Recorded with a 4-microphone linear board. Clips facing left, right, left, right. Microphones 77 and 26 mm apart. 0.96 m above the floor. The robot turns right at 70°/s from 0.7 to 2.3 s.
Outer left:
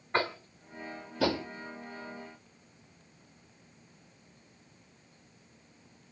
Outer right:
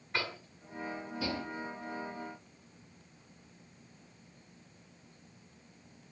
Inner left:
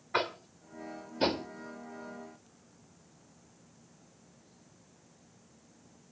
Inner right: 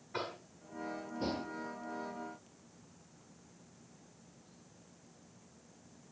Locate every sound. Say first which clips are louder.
0.1 s tapping: outer left 7 dB, inner left 9 dB; 40° left (ahead or behind), 1.5 m; by 1.5 s 80° left, 1.5 m